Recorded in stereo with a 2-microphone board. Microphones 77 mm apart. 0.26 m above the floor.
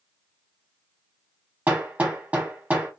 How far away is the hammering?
About 0.9 m.